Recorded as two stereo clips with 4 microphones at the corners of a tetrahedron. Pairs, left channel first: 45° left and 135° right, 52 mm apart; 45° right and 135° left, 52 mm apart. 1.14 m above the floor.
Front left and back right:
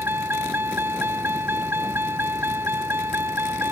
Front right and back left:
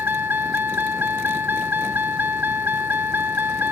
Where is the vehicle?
175° right.